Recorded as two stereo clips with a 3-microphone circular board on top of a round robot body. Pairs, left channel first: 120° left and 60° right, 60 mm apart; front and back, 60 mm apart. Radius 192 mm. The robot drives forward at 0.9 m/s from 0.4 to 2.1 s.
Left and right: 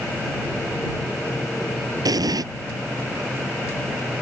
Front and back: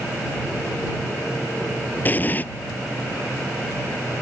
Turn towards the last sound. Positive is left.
turn(degrees=-60)